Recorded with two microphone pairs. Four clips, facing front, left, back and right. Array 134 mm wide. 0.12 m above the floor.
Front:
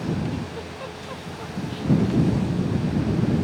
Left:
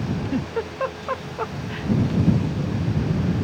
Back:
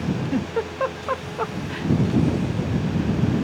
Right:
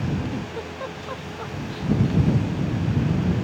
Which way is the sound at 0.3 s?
150° left.